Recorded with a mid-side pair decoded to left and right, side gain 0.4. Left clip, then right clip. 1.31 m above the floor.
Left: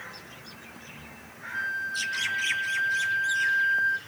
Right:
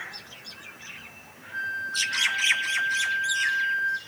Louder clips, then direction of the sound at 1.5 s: Right 1 dB; 5° right.